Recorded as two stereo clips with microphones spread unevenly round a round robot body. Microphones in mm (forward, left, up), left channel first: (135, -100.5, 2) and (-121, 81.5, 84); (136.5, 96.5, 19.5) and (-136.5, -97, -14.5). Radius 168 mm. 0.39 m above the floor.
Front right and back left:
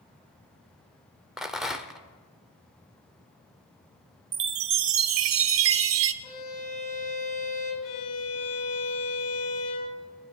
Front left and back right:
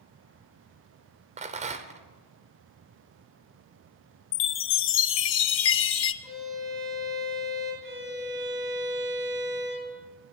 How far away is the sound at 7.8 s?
About 6.5 m.